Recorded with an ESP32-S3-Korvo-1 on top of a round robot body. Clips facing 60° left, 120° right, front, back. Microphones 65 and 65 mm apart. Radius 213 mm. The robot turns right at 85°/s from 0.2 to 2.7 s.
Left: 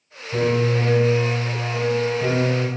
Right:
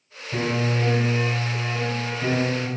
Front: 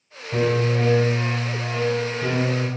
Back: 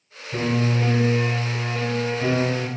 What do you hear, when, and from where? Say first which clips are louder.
0.3 s a piano: left 4 dB, front 2 dB; 40° right, 1.6 m; by 2.7 s 160° left, 1.6 m